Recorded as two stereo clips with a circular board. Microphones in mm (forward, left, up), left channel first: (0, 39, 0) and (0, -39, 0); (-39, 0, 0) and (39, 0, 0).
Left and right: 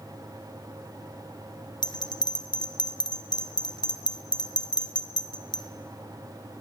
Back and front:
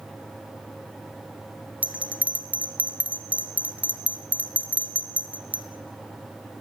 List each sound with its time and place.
1.8 s a bell: 70° left, 1.4 m